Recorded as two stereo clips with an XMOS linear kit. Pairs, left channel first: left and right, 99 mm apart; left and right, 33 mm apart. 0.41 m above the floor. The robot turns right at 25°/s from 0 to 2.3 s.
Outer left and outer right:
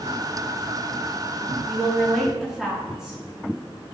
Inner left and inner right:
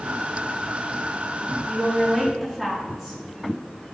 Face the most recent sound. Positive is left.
turn(degrees=-10)  # may be behind; listen again after turning